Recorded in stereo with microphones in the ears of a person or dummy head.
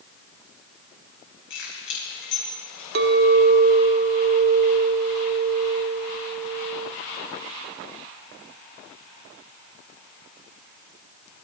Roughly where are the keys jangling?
Left.